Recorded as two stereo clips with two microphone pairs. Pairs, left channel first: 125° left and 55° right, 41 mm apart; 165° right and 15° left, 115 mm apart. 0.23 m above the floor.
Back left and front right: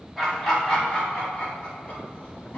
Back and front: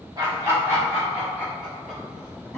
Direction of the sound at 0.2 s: 40° left.